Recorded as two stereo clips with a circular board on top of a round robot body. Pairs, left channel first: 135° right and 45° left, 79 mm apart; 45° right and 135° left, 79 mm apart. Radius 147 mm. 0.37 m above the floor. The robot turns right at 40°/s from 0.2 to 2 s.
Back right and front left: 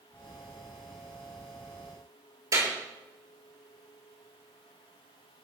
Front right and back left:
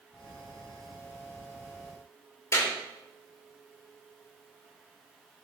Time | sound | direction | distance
2.5 | a clap | 5° left | 7 m